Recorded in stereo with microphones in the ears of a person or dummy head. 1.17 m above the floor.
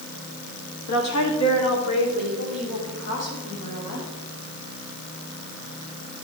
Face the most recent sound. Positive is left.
turn(degrees=70)  # may be behind; listen again after turning